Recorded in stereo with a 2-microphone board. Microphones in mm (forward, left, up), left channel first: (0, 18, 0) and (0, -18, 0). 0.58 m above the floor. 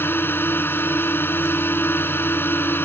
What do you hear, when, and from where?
0.0 s a drone: 80° left